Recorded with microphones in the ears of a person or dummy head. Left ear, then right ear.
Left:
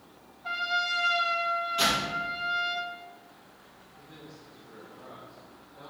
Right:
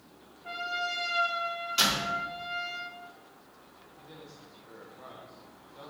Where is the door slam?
55° right (ahead or behind), 3.5 m.